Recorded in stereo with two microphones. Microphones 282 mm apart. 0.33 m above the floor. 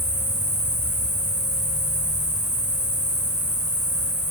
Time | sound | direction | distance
0.0 | an insect | 60° left (ahead or behind) | 2 m